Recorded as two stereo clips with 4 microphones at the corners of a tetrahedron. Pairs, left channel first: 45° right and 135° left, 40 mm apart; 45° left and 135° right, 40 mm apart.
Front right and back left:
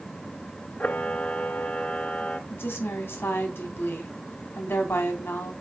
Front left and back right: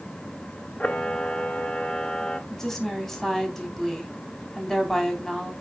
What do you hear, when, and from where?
0.8 s a camera shutter: 10° right, 1.0 m
2.5 s a woman speaking: 40° right, 3.5 m